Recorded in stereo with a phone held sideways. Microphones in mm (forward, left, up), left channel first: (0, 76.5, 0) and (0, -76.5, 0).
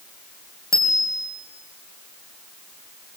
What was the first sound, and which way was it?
A bicycle bell, 20° right (ahead or behind).